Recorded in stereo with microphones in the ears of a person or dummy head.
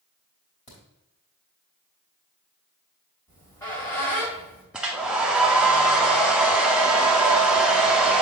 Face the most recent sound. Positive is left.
turn(degrees=-5)  # may be behind; listen again after turning